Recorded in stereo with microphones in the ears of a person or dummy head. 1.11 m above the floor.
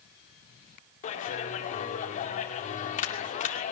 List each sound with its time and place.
1.0 s a clap: 40° left (ahead or behind), 2 m